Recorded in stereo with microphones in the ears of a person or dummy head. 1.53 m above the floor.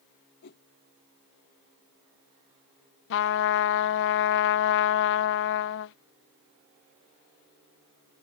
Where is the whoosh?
60° left (ahead or behind).